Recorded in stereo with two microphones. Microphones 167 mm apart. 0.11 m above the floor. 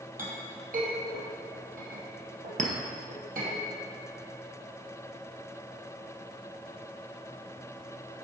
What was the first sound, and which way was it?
A clink, 55° right (ahead or behind).